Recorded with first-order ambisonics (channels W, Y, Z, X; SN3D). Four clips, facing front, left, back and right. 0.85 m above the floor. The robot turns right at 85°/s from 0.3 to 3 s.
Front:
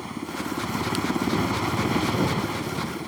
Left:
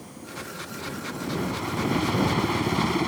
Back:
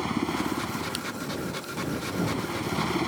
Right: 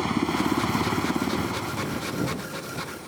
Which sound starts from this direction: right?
A helicopter, at 0.0 s.